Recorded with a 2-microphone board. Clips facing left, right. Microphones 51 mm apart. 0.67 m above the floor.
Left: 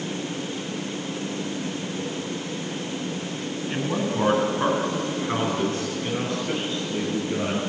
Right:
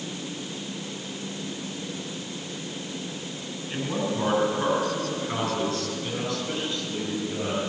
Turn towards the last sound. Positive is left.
turn(degrees=30)  # may be behind; listen again after turning